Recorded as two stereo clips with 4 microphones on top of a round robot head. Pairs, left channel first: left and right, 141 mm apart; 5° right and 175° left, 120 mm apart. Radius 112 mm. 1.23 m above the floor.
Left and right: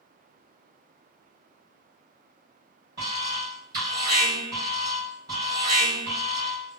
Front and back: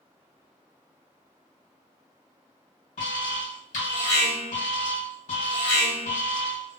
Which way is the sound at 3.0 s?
25° right.